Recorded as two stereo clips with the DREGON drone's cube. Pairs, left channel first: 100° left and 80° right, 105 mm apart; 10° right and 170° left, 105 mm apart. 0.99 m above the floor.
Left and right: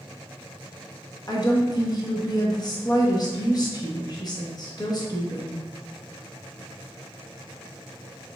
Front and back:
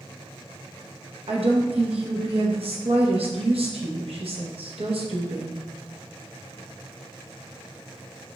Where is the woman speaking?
145° left, 0.9 m.